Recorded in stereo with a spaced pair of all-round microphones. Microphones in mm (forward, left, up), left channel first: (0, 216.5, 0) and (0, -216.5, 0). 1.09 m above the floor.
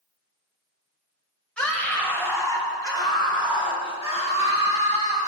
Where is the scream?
Centre (ahead or behind), 6.5 m; by 5.3 s 15° left (ahead or behind), 9.5 m.